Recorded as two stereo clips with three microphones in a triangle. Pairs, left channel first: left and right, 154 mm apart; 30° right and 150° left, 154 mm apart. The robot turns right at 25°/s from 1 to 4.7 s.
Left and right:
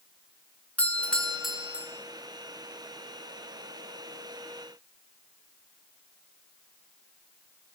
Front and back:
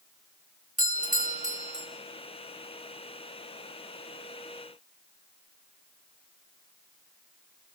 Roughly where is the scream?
I don't hear a scream.